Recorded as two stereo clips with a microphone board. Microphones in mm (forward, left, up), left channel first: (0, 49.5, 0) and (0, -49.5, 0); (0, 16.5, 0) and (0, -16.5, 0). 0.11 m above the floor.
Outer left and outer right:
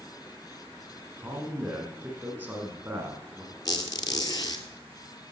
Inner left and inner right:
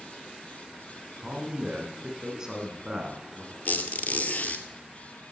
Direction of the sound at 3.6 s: 40° left (ahead or behind).